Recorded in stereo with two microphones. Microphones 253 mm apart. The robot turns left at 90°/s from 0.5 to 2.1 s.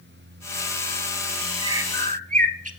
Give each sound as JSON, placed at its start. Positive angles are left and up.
{"t": 1.6, "sound": "a bird", "azimuth_deg": -105, "distance_m": 0.6}